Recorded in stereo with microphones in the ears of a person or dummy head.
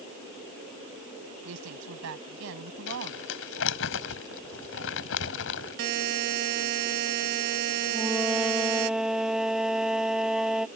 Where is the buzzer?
55° right (ahead or behind).